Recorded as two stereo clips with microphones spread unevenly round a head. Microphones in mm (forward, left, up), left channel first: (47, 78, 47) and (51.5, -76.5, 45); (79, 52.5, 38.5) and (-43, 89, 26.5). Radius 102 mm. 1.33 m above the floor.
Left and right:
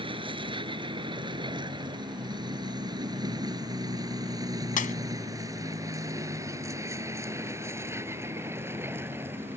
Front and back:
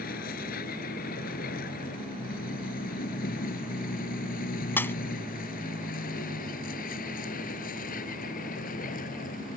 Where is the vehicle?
30° right; by 9.6 s 10° right.